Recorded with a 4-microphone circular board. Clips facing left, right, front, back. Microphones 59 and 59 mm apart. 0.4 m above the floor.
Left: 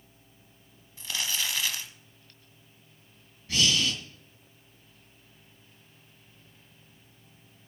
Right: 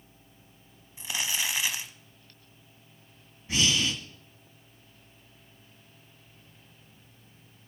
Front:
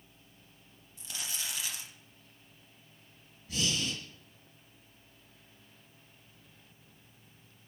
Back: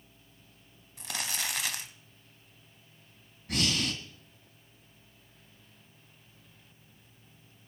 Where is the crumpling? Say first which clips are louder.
Right 1 dB, back 6 dB; 160° right, 1.1 m.